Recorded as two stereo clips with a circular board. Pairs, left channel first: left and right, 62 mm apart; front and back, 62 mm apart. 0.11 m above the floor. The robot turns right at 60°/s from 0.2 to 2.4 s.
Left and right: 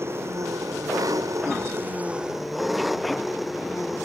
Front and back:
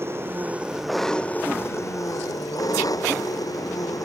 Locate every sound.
0.0 s an engine running: 135° right; by 4.0 s straight ahead